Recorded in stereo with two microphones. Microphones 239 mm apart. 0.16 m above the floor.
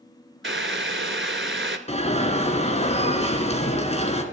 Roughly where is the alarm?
Left.